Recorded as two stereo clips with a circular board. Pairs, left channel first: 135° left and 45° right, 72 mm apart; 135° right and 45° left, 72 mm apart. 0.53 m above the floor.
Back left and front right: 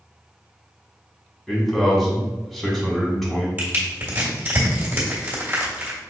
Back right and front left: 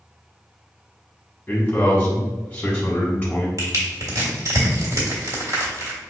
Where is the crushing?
20° left, 1.6 m.